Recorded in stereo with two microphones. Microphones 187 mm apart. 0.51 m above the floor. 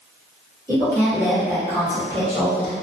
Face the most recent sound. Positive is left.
turn(degrees=-35)  # may be behind; listen again after turning